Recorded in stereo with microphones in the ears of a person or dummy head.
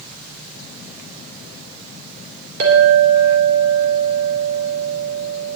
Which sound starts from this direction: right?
A clink, at 2.6 s.